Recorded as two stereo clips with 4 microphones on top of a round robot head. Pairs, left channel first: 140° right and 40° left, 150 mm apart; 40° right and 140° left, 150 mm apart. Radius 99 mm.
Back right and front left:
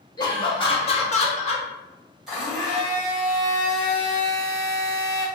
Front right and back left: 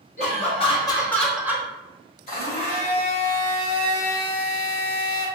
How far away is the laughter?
About 1.6 m.